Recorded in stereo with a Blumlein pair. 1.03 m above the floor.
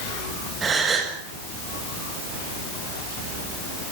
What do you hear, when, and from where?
0.6 s a gasp: 20° right, 7 m